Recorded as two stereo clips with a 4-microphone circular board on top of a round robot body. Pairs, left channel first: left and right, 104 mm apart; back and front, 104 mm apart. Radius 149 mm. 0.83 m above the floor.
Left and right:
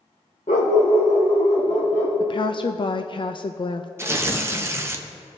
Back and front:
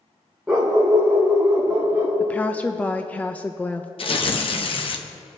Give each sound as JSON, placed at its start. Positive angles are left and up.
{"t": 0.5, "sound": "a dog barking", "azimuth_deg": 80, "distance_m": 0.6}
{"t": 2.2, "sound": "a woman speaking", "azimuth_deg": 110, "distance_m": 0.6}
{"t": 4.0, "sound": "tearing paper", "azimuth_deg": -155, "distance_m": 1.0}